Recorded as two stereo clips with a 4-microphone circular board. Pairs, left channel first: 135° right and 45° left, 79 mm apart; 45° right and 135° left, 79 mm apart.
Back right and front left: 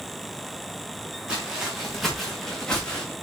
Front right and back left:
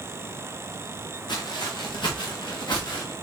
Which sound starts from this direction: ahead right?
Footsteps, at 1.3 s.